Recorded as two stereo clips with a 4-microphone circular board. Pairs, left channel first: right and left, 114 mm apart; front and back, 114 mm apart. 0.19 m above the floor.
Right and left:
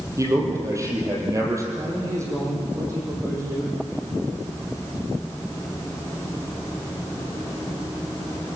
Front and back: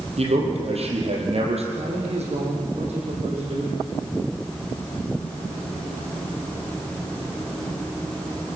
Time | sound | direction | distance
0.2 | a man speaking | 155° left | 5 m
1.7 | a man speaking | 155° left | 8 m